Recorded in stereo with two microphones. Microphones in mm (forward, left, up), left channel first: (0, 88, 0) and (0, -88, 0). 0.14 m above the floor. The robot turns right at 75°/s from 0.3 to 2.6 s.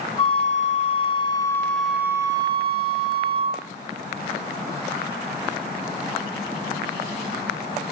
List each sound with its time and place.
0.2 s a flute: 65° left, 0.7 m; by 3.6 s 125° right, 0.7 m